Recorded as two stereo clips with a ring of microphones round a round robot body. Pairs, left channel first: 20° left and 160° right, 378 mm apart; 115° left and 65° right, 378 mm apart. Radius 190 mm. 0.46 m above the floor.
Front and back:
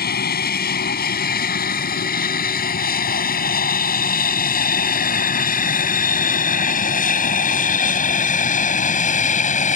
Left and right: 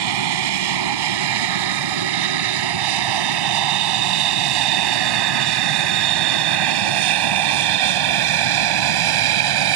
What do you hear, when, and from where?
0.0 s an aircraft: 45° right